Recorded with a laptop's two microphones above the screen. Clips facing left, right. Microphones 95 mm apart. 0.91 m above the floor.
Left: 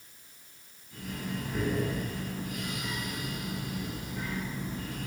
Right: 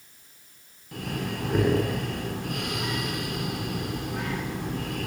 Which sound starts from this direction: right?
Breathing, at 0.9 s.